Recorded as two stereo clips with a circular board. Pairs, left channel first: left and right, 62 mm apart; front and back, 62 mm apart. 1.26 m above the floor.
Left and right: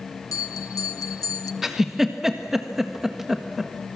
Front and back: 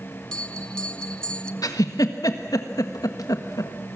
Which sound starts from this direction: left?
A bell, at 0.3 s.